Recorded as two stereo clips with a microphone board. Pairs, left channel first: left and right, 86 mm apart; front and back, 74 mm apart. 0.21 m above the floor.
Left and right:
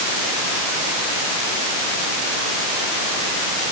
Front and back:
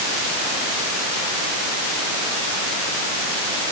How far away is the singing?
I don't hear singing.